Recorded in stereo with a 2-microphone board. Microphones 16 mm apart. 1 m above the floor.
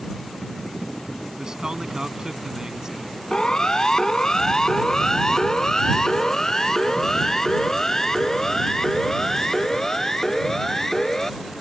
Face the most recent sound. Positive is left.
turn(degrees=20)  # may be behind; listen again after turning